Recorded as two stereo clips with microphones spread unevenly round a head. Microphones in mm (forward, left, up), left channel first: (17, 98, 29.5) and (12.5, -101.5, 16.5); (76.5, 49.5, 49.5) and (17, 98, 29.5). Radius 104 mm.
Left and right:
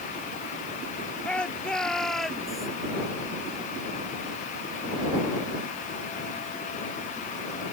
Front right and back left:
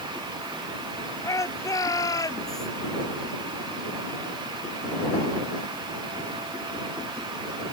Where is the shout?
5° left; by 2.7 s straight ahead.